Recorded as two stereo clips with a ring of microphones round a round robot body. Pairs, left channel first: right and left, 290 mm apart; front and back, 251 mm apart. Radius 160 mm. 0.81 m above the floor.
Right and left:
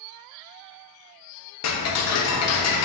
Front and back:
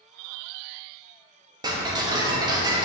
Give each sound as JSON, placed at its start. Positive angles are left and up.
{"t": 1.6, "sound": "ticking", "azimuth_deg": -105, "distance_m": 1.1}